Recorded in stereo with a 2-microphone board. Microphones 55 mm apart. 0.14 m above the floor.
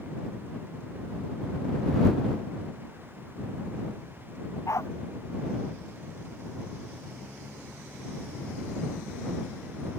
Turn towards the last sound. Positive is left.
turn(degrees=75)  # may be behind; listen again after turning